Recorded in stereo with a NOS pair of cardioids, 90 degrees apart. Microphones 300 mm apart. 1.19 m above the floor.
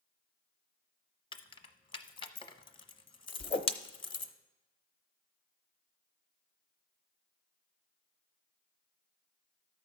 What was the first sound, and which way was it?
Keys jangling, 15° left.